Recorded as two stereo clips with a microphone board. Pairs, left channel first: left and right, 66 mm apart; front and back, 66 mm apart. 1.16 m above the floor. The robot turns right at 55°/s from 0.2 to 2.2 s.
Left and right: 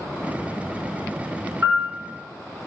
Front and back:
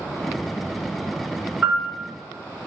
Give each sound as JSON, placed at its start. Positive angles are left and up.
{"t": 1.6, "sound": "a piano", "azimuth_deg": -115, "distance_m": 1.2}